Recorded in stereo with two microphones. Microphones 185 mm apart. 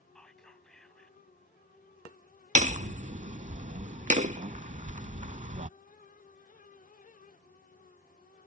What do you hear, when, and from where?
0.1 s whispering: 5° left (ahead or behind)
2.5 s hammering: 40° right (ahead or behind)